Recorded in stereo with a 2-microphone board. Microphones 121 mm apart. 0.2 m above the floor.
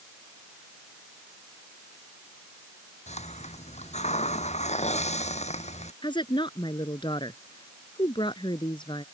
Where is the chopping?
I don't hear chopping.